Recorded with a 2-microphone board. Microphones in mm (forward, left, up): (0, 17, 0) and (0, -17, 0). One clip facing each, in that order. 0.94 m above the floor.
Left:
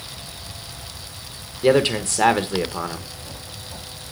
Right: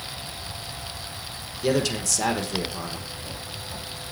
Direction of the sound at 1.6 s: 40° left (ahead or behind).